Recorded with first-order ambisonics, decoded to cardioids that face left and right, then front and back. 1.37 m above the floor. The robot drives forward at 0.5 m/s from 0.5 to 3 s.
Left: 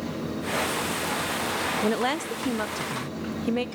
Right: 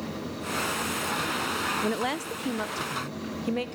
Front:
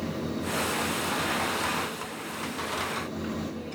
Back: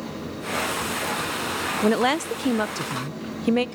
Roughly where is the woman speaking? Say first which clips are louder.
Left 3 dB, back 13 dB; behind.